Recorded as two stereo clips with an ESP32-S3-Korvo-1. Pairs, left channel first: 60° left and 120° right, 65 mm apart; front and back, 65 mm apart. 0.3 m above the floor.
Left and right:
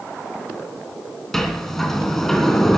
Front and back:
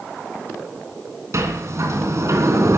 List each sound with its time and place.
1.3 s a sliding door: 145° left, 3 m